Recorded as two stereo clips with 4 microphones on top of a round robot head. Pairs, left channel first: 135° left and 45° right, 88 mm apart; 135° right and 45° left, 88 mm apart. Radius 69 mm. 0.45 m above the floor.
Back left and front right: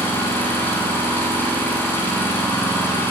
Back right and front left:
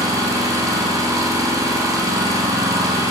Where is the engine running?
80° left, 1.2 m.